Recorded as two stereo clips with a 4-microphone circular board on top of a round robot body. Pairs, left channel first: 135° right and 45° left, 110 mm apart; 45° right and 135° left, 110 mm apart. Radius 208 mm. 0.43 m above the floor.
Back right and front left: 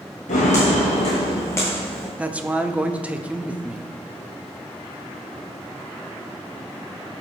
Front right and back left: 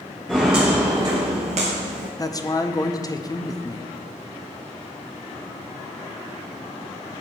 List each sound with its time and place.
0.3 s footsteps: 130° right, 0.7 m; by 2.1 s 140° left, 0.8 m
2.2 s a man speaking: 25° right, 0.8 m